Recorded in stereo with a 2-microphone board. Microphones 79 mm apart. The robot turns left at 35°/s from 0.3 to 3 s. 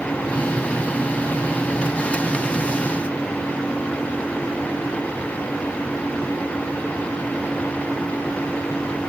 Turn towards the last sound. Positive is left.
No sound to turn to.